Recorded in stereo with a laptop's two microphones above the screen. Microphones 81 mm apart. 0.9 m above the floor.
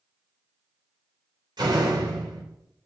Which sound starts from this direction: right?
A door slam, at 1.6 s.